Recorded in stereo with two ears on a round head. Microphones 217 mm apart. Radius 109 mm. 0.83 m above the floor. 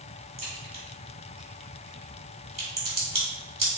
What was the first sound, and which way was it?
A crack, 30° right (ahead or behind).